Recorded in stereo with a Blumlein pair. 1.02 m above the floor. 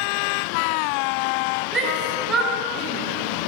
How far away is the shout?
About 3 m.